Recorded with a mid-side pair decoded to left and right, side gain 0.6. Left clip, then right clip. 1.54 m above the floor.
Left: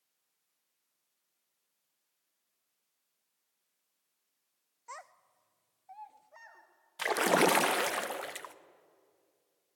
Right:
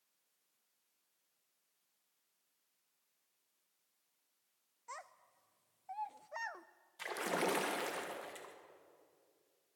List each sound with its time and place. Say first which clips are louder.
4.9 s a child speaking: left 3 dB; 15° left, 1.1 m; by 6.7 s 60° right, 1.0 m
7.0 s a splash: left 11 dB; 55° left, 1.2 m